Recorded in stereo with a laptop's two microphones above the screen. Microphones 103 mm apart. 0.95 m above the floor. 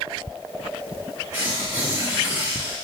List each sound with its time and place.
1.3 s tearing paper: 35° right (ahead or behind), 2 m